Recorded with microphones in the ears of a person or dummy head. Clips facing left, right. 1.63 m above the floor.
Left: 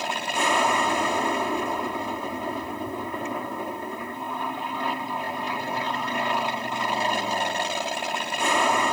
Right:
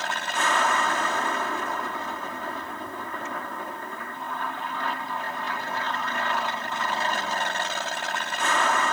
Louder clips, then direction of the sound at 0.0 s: Left 2 dB; 15° left (ahead or behind).